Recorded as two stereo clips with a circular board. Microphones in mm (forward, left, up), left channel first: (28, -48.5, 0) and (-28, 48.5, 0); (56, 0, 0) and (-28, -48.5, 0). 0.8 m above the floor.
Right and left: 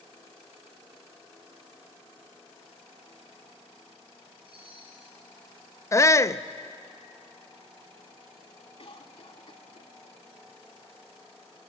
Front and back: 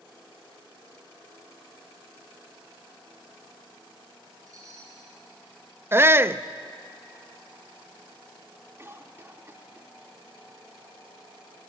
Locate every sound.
4.5 s a chime: 160° left, 7.5 m
5.9 s a shout: 105° right, 0.5 m
8.8 s a cough: 90° right, 2 m